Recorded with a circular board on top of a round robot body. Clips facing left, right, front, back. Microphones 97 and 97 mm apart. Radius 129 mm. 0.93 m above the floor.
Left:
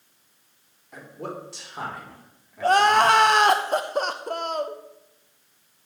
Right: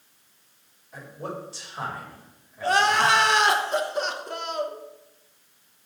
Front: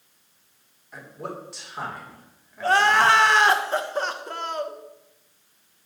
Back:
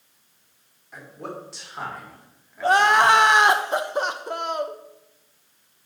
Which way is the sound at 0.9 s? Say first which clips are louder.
Even, even; 90° left.